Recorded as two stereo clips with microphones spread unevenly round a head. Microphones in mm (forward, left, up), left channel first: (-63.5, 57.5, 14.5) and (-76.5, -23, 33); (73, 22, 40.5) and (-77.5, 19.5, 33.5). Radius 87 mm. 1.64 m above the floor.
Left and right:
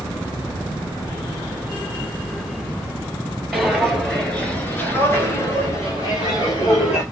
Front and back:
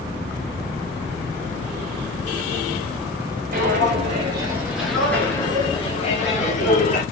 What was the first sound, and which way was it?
Footsteps, 170° right.